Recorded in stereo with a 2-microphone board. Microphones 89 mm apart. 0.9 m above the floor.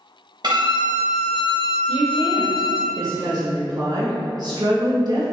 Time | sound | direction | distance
0.4 | a violin | 55° right (ahead or behind) | 1.0 m
1.9 | a woman speaking | 50° right (ahead or behind) | 1.5 m